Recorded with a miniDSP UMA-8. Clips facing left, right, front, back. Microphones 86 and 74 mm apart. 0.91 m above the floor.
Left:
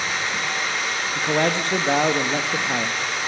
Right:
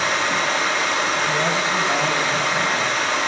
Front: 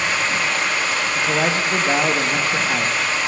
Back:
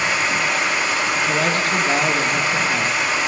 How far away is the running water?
About 1.6 m.